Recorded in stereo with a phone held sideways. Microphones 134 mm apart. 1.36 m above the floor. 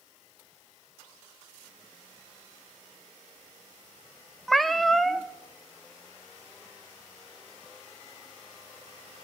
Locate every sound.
4.5 s a cat meowing: centre (ahead or behind), 0.5 m